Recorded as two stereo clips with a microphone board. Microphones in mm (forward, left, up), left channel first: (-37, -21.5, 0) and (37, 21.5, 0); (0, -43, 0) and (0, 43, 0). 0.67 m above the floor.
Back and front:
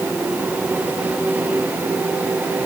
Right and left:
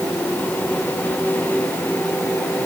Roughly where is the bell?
No bell in this recording.